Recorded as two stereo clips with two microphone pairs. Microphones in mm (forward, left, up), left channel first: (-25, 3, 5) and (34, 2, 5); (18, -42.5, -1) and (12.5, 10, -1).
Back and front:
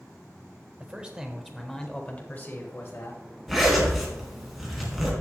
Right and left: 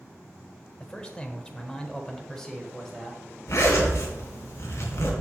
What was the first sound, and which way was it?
A man speaking, 35° right.